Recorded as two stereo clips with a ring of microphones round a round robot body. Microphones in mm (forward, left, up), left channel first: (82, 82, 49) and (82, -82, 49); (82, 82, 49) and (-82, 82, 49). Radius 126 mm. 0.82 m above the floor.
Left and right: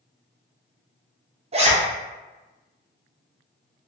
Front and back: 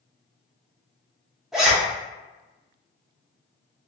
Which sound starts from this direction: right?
A zipper, at 1.5 s.